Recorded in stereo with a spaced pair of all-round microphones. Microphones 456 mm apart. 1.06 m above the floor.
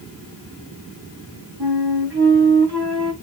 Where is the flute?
60° right (ahead or behind), 1.6 m.